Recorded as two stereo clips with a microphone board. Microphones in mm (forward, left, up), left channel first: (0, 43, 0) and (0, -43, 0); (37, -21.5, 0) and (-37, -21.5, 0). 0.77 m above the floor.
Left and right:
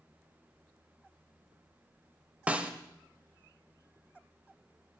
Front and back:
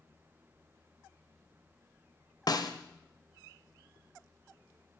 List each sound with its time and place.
2.5 s a snare drum: 20° right, 0.9 m